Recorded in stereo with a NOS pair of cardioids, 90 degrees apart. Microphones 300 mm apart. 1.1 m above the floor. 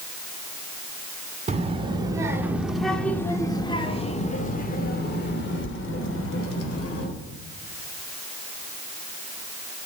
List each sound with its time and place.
1.5 s a child speaking: 20° right, 2.5 m; by 7.1 s 50° left, 3.5 m